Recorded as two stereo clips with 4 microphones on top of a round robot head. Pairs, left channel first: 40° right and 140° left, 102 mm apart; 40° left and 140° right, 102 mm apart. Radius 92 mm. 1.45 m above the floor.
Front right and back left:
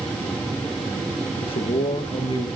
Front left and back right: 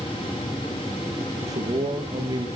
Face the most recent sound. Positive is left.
turn(degrees=-85)